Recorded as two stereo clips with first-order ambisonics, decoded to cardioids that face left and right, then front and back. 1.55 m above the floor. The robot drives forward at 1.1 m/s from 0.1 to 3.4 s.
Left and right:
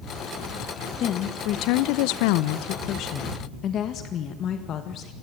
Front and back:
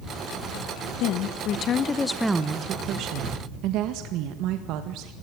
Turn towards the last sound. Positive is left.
turn(degrees=145)